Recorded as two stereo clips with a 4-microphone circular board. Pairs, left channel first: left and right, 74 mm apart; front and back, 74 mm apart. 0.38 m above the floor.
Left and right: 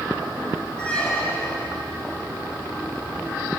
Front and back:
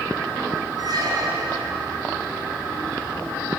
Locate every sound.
0.8 s a squeak: 165° left, 1.9 m